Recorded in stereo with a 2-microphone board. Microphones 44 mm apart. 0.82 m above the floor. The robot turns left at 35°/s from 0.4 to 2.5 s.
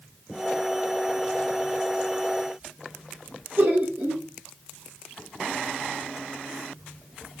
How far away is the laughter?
About 1.7 m.